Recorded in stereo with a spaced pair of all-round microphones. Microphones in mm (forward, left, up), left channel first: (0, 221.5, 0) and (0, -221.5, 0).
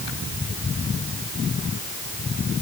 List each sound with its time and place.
Only background noise.